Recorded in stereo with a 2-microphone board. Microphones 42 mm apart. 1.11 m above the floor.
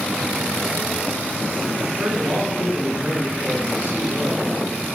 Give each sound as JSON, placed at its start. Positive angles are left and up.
{"t": 1.8, "sound": "a man speaking", "side_deg": -60, "distance_m": 2.5}